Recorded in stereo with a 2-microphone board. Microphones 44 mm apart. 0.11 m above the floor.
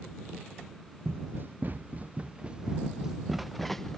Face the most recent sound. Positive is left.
turn(degrees=10)  # may be behind; listen again after turning